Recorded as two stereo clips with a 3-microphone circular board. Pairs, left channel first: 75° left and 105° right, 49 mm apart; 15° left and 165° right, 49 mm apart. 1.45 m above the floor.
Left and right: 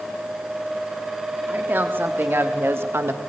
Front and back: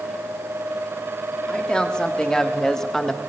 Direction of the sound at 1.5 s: 55° right.